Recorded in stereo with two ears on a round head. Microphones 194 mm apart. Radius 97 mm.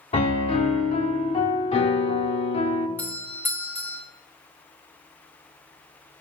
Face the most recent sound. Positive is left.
turn(degrees=10)  # may be behind; listen again after turning